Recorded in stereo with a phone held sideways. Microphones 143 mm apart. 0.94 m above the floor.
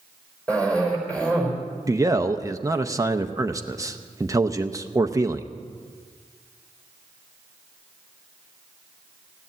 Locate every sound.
0.5 s a cough: 10° left (ahead or behind), 4.5 m
1.9 s a man speaking: 25° right (ahead or behind), 0.6 m